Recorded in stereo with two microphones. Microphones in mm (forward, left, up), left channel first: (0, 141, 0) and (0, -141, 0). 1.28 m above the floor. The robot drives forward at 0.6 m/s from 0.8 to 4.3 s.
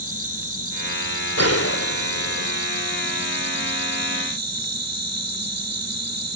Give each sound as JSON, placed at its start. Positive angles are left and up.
{"t": 0.0, "sound": "an insect", "side_deg": -55}
{"t": 1.4, "sound": "a gunshot", "side_deg": 60}